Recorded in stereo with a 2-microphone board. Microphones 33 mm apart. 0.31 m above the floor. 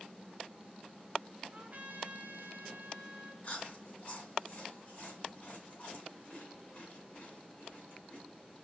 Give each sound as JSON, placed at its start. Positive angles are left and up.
{"t": 1.5, "sound": "a trumpet", "side_deg": -55, "distance_m": 0.8}
{"t": 3.4, "sound": "chewing", "side_deg": 50, "distance_m": 1.9}